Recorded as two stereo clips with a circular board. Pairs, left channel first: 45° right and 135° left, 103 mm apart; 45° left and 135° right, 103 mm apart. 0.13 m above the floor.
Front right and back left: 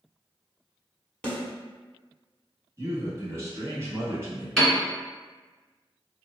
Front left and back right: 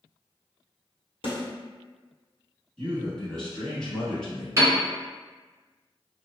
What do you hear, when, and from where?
1.2 s a snare drum: 35° left, 1.3 m
2.8 s a man speaking: 120° left, 1.2 m
4.6 s a piano: 130° right, 1.6 m